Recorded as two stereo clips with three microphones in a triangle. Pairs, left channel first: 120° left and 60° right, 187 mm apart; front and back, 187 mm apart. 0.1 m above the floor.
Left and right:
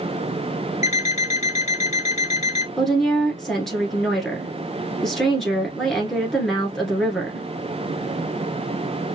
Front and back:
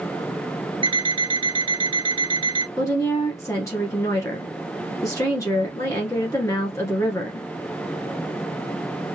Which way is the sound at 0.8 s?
135° left.